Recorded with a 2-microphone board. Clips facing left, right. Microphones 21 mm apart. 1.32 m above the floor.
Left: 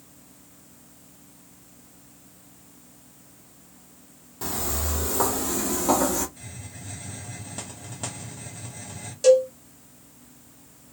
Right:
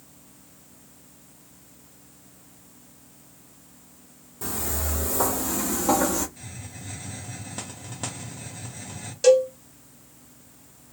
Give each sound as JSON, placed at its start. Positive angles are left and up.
{"t": 4.4, "sound": "footsteps", "side_deg": 30, "distance_m": 1.6}
{"t": 6.4, "sound": "a hiss", "side_deg": -10, "distance_m": 0.9}
{"t": 9.2, "sound": "a cowbell", "side_deg": -15, "distance_m": 1.6}